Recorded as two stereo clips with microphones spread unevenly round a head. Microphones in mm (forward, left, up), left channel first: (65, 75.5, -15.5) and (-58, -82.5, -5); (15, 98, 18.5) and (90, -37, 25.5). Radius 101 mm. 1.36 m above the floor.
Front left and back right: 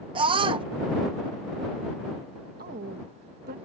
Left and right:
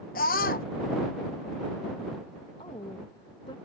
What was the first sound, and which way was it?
A scream, 165° left.